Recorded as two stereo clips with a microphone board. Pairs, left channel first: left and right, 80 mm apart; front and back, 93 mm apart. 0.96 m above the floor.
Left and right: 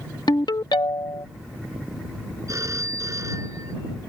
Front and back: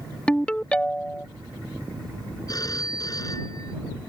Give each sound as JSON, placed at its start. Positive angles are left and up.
{"t": 0.3, "sound": "a ringtone", "azimuth_deg": 75}
{"t": 2.5, "sound": "a phone ringing", "azimuth_deg": -45}